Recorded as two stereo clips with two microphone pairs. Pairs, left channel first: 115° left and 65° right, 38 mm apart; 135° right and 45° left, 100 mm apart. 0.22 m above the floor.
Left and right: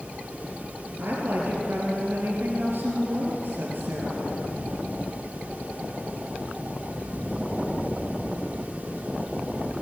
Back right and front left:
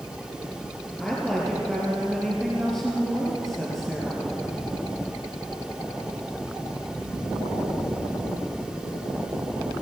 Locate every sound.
1.0 s a woman speaking: 50° right, 4 m